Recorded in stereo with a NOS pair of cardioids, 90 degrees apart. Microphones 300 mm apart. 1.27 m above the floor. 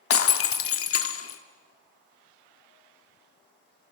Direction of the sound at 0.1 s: 50° left.